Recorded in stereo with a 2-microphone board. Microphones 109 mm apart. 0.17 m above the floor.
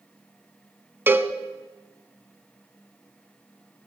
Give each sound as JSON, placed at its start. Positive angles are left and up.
{"t": 1.1, "sound": "a cowbell", "side_deg": -20, "distance_m": 0.7}